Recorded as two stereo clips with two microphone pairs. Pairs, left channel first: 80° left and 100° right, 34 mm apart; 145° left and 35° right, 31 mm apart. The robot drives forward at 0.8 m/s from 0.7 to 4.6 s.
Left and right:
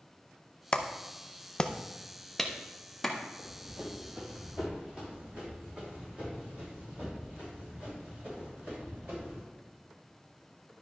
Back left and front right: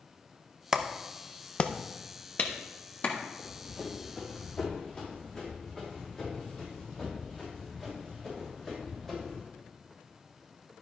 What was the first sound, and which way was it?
A clap, 30° left.